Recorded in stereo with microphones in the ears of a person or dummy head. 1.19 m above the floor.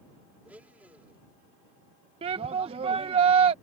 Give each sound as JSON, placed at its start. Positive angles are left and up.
{"t": 0.5, "sound": "a blender", "side_deg": -10}
{"t": 2.2, "sound": "a shout", "side_deg": -30}